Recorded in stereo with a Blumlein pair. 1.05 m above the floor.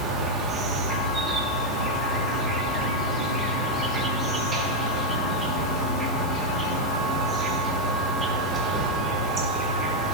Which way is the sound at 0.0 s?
20° right.